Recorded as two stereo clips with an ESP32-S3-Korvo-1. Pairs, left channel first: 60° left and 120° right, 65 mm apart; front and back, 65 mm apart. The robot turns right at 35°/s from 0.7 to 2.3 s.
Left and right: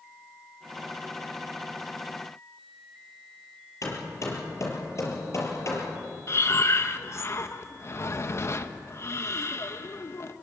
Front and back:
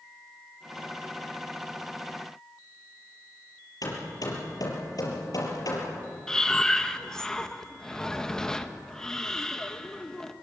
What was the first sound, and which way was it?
Hammering, 20° left.